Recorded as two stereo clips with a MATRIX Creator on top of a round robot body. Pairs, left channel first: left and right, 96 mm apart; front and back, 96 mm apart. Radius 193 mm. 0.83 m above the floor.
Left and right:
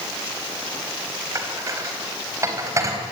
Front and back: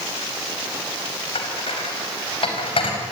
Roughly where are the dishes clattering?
Ahead right.